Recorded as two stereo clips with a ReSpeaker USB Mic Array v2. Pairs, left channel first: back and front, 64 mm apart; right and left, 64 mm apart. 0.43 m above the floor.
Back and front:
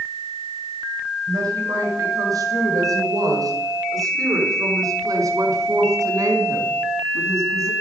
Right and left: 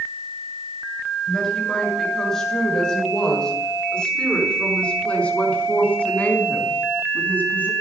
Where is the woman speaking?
5° right, 7 m; by 7.7 s 30° right, 4 m.